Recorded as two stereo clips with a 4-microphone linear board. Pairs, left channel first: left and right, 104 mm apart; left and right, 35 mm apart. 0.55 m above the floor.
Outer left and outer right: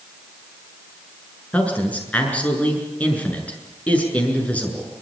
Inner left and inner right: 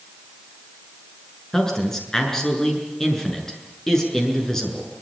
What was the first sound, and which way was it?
A man speaking, 15° left (ahead or behind).